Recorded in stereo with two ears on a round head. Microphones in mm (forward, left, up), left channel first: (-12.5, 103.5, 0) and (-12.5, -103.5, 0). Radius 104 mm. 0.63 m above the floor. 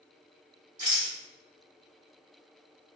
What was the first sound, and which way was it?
A rattle, 30° right (ahead or behind).